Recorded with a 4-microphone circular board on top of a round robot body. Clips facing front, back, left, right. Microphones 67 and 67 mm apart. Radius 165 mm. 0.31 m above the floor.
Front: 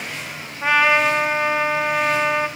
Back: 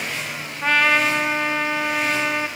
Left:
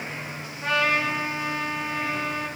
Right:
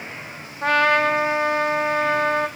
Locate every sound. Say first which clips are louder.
0.6 s a trumpet: front 2 dB, right 6 dB; 80° right, 1.5 m